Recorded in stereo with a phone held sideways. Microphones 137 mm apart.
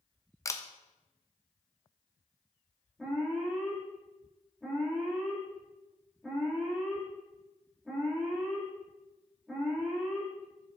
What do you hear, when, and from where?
0.5 s a camera shutter: 20° left (ahead or behind), 0.6 m
3.0 s an alarm: centre (ahead or behind), 2 m